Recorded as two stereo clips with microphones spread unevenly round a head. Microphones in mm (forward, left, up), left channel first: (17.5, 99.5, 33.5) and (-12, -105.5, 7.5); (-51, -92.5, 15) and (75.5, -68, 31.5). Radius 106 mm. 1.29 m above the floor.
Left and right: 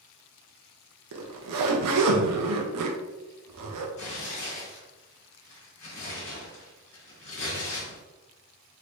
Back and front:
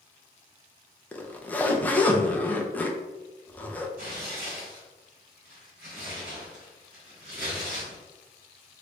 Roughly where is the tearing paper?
Ahead left.